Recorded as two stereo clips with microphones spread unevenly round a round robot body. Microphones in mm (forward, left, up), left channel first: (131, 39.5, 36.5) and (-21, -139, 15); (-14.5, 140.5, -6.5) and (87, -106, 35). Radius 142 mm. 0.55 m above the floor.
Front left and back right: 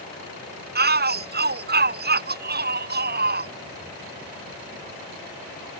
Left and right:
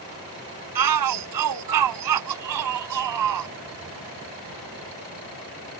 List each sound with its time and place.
0.8 s a shout: 85° right